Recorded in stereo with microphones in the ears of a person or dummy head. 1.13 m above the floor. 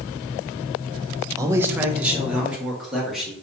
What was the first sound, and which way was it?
A man speaking, 20° right (ahead or behind).